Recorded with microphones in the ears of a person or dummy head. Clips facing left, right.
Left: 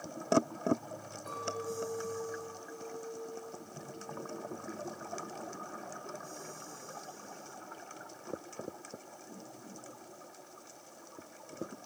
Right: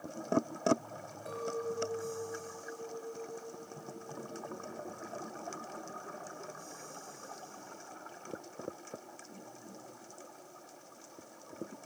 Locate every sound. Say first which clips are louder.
1.3 s a clink: right 2 dB; 20° right (ahead or behind), 5 m